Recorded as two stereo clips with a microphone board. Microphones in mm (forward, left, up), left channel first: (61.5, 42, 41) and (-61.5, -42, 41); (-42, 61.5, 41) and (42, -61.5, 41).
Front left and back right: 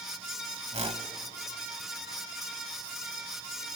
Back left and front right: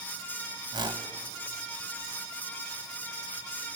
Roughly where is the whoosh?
Right.